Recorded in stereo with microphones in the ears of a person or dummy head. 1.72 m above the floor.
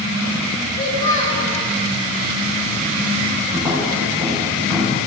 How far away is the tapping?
About 5 m.